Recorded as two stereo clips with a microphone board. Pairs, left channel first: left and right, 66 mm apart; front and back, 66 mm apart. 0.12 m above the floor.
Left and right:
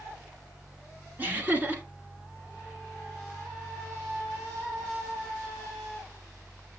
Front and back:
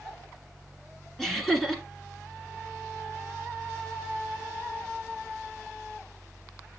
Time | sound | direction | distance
1.2 | laughter | 80° right | 1.2 m